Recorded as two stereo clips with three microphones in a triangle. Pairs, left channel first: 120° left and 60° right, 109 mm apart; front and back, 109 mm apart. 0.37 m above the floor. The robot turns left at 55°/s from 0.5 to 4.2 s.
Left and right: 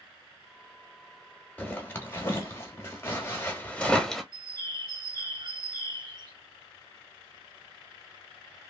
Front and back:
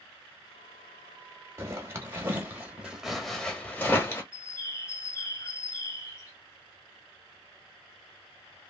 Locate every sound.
1.6 s a zipper: straight behind, 1.0 m; by 4.2 s 35° left, 1.0 m
4.3 s a bird: 45° right, 1.0 m